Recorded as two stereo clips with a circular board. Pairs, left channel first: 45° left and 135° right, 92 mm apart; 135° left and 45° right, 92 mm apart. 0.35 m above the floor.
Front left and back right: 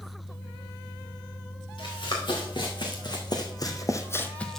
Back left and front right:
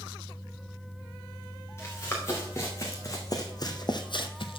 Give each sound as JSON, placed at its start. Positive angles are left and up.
{"t": 1.8, "sound": "running footsteps", "azimuth_deg": 75, "distance_m": 3.0}